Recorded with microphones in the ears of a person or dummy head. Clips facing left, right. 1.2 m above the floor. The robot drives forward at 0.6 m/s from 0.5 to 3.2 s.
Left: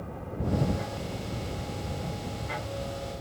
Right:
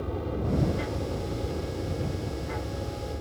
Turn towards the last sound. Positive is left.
turn(degrees=-45)  # may be behind; listen again after turning